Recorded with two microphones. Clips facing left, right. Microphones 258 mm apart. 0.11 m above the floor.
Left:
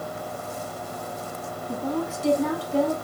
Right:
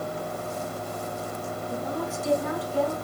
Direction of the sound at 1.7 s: 65° left (ahead or behind).